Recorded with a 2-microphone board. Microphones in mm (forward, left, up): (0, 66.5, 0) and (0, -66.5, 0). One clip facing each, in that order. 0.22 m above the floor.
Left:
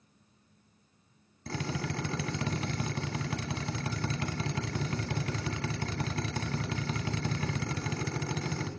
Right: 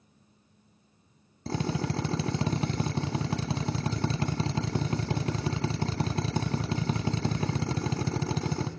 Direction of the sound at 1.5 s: 30° right (ahead or behind).